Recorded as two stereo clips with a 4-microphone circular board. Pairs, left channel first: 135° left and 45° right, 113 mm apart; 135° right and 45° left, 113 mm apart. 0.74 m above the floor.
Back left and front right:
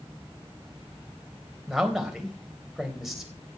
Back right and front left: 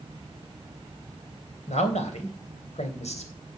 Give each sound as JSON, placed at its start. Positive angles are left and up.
{"t": 1.7, "sound": "a man speaking", "azimuth_deg": -130, "distance_m": 3.0}